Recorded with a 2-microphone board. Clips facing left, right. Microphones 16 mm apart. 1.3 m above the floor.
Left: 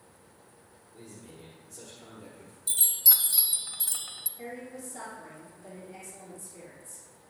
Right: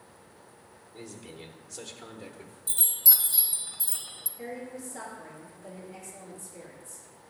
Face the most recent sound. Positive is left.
turn(degrees=0)  # may be behind; listen again after turning